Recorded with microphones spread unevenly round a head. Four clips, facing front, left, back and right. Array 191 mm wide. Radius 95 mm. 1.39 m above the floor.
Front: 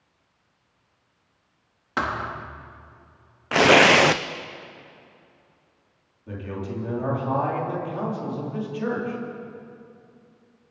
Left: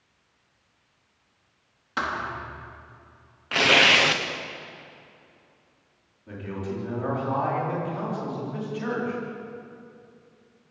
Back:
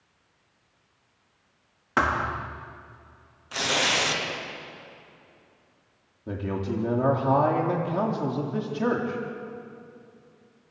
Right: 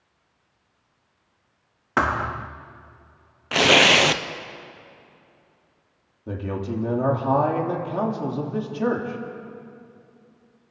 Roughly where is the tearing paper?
Ahead.